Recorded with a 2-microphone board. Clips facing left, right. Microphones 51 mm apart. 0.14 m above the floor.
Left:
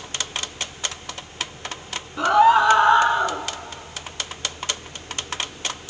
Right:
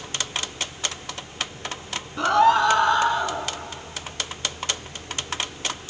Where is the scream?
5° left (ahead or behind), 1.2 m; by 3.4 s 30° left (ahead or behind), 1.6 m.